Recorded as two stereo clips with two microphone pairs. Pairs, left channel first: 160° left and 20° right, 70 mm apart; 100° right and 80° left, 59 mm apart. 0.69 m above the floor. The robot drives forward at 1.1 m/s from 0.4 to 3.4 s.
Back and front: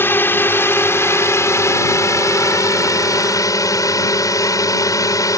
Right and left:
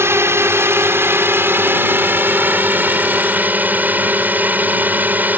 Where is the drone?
110° left; by 5.4 s 135° left.